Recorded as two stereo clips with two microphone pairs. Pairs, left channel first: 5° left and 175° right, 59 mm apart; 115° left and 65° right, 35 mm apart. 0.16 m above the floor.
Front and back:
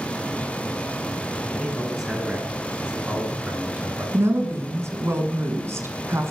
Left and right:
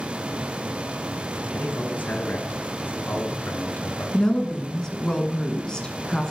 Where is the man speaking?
100° left, 2.5 m; by 4.0 s 130° left, 3 m.